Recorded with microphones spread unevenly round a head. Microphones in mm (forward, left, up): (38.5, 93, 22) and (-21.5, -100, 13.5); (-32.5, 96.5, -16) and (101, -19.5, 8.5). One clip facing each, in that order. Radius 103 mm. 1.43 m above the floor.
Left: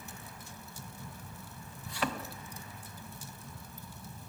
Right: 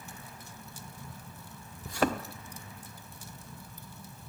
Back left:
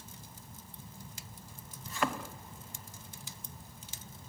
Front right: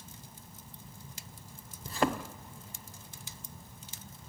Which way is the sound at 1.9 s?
75° right.